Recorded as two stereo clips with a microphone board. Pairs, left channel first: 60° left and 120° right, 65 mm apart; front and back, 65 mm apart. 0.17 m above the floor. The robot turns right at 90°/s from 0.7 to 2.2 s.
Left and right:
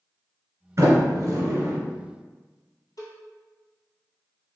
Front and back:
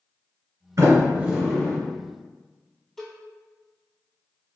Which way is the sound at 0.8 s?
150° right.